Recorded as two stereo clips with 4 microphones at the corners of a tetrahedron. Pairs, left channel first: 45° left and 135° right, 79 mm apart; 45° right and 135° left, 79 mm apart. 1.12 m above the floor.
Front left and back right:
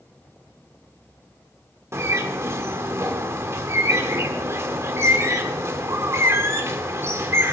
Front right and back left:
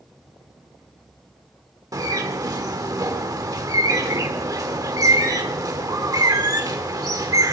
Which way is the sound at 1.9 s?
175° left.